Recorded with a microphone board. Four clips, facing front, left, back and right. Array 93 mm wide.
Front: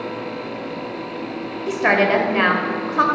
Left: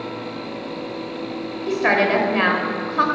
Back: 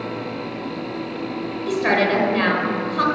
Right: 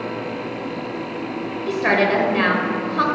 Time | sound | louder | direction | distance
1.7 | a woman speaking | even, front 2 dB | 20° left | 0.9 m